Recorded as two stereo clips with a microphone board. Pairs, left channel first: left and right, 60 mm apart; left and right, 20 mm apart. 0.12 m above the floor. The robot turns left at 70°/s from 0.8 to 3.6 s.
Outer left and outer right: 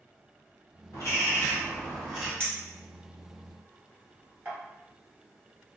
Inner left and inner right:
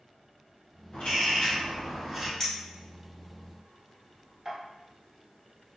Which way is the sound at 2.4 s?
20° left (ahead or behind).